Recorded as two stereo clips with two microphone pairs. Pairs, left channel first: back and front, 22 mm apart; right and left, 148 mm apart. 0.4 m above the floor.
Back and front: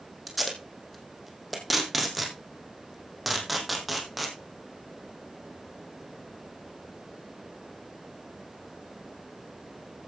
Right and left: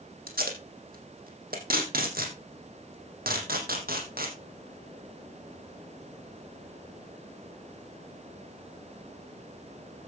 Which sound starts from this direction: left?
Tape being pulled, at 0.3 s.